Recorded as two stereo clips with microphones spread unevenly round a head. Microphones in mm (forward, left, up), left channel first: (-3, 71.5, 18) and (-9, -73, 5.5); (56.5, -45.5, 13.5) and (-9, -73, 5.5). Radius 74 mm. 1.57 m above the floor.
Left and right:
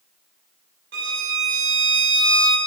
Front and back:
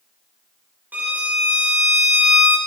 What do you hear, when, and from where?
0.9 s a violin: 90° right, 2.5 m